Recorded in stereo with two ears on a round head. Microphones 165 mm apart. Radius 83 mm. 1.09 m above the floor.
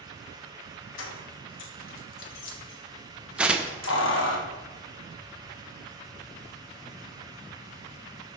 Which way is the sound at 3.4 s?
5° right (ahead or behind).